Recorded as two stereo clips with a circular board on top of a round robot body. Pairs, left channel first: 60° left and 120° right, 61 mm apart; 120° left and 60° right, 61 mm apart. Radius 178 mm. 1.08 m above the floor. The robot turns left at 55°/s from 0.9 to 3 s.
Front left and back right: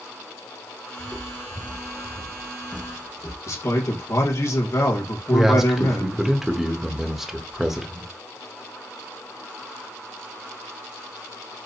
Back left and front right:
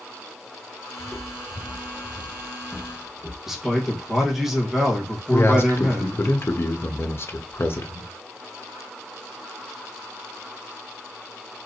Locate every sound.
1.0 s footsteps: 165° right, 1.3 m; by 3.4 s 5° right, 1.9 m
3.5 s a man speaking: 25° left, 1.3 m
5.3 s a man speaking: 155° left, 1.1 m